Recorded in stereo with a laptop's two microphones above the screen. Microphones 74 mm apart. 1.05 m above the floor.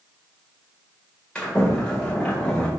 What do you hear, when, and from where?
1.4 s a sliding door: 15° left (ahead or behind), 1.9 m